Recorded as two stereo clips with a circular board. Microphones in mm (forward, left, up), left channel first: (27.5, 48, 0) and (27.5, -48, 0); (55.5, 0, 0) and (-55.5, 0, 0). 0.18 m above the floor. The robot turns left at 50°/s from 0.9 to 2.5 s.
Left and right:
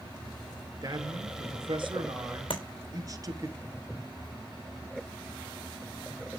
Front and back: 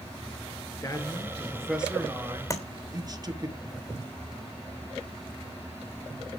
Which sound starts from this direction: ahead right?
A man speaking, at 0.8 s.